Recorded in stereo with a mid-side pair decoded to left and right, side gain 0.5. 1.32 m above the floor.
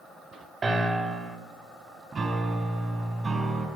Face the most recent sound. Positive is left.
turn(degrees=-40)